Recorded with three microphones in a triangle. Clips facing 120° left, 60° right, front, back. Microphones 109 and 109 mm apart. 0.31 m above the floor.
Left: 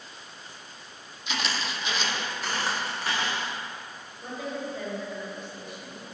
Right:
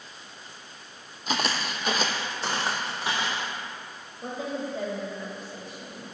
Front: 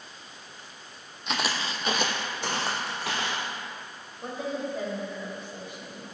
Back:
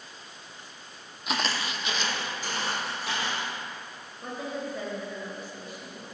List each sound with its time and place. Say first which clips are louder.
1.3 s footsteps: right 3 dB, even; 95° right, 0.6 m; by 3.5 s 15° left, 1.9 m
4.2 s a woman speaking: right 2 dB, front 2 dB; 45° right, 1.2 m